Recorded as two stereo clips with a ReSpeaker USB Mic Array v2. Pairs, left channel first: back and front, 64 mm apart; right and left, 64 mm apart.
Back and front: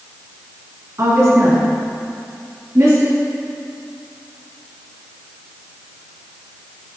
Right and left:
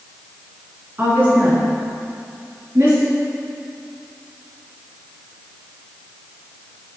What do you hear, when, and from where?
1.0 s a woman speaking: 35° left, 2 m; by 3.1 s 40° left, 3 m